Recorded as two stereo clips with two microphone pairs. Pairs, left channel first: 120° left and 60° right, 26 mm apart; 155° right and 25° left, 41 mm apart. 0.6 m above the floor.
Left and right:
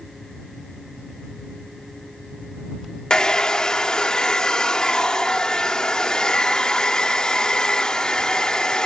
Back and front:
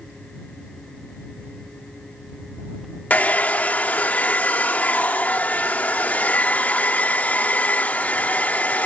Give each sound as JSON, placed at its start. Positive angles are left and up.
{"t": 3.1, "sound": "a hair dryer", "azimuth_deg": 175}